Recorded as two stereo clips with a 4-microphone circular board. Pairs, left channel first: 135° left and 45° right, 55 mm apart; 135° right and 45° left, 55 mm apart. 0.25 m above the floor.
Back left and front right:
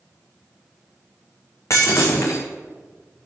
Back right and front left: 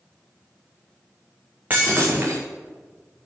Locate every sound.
1.7 s breaking glass: 105° left, 3 m